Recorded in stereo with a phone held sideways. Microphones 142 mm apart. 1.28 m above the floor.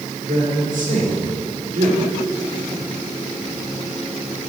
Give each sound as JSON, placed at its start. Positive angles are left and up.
{"t": 0.3, "sound": "a man speaking", "side_deg": -70, "distance_m": 4.5}